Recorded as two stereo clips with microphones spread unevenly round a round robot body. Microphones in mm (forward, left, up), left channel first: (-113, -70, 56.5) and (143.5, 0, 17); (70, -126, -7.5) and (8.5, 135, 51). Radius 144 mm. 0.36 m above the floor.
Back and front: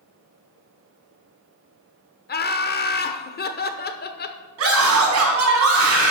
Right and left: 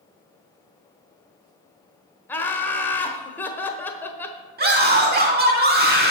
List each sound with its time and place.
2.3 s laughter: 130° right, 1.0 m
4.6 s a scream: 45° left, 3 m